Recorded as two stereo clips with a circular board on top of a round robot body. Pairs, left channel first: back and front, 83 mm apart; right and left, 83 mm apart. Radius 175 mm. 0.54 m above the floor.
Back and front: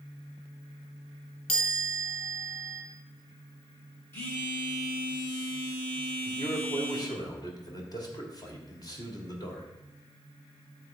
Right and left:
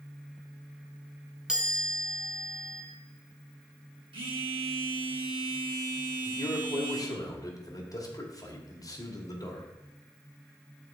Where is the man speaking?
135° right, 2 m.